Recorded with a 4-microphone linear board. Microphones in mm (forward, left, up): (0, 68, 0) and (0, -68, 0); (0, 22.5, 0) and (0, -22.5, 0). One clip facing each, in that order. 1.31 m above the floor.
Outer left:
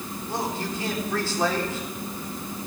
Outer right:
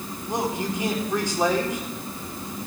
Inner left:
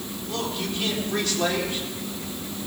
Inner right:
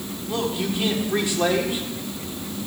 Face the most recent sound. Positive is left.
turn(degrees=-20)  # may be behind; listen again after turning